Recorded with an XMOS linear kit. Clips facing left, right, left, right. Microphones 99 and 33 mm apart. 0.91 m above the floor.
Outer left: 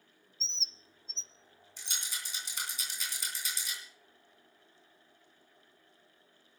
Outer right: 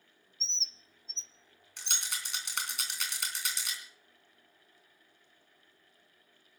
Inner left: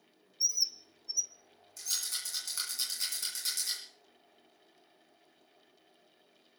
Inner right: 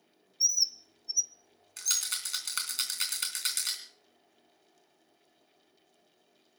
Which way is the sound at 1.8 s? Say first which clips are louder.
Outer right 3 dB, inner right 4 dB; 70° right (ahead or behind).